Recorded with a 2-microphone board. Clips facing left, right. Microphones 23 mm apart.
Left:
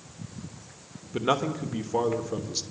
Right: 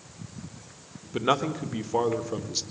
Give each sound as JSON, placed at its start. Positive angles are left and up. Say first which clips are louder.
{"t": 1.1, "sound": "a man speaking", "louder": "right 1 dB", "side_deg": -10, "distance_m": 1.1}